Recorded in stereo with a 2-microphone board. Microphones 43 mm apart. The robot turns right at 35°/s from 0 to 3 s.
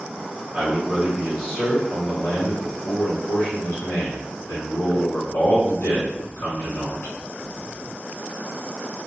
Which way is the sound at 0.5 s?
30° right.